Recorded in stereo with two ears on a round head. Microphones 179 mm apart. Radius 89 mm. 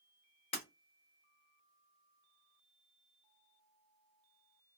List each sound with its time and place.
0.5 s breaking glass: 30° left (ahead or behind), 1.3 m